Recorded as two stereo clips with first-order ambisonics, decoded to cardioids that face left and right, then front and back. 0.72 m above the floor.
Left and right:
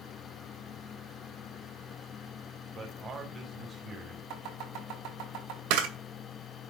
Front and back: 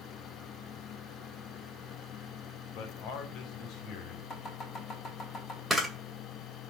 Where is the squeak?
No squeak in this recording.